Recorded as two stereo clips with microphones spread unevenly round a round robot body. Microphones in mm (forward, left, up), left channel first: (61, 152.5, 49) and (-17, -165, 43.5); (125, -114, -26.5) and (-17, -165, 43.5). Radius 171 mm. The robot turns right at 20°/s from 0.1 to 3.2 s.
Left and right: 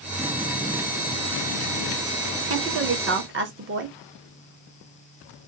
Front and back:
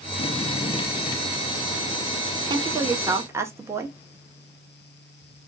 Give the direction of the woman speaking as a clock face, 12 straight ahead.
3 o'clock.